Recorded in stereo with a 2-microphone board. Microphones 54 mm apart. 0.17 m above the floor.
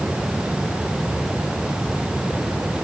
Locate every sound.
Only background noise.